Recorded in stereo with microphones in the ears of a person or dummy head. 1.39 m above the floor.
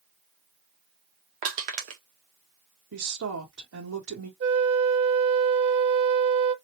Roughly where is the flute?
Right.